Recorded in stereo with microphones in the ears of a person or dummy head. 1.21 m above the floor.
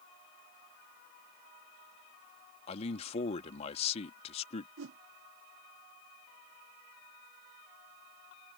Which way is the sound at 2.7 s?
40° left (ahead or behind).